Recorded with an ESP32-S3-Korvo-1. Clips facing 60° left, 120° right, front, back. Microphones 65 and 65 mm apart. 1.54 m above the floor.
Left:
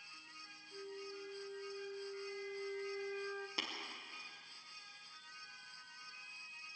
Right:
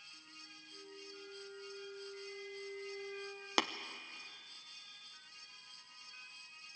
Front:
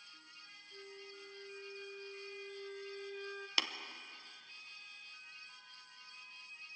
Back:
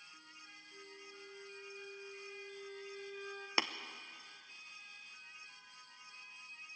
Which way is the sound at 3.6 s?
115° right.